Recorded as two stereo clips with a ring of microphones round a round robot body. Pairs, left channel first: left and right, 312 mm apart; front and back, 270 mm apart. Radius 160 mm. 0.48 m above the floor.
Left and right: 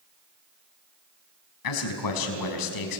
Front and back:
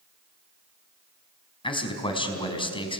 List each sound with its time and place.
1.6 s a man speaking: 70° left, 4.5 m